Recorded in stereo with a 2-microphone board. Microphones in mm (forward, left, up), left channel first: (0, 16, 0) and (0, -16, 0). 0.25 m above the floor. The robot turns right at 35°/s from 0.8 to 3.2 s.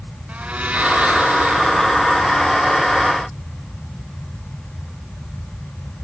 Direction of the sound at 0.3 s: 125° right.